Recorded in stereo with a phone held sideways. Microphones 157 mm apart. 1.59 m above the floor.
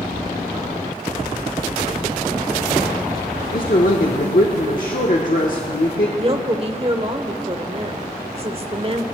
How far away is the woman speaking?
About 1.0 m.